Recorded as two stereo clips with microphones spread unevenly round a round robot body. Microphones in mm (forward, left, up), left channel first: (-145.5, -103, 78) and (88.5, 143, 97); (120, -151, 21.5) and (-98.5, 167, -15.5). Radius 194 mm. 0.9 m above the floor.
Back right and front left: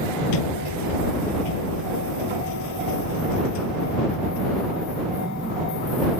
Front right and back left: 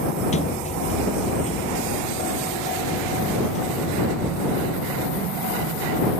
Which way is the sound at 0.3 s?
130° right.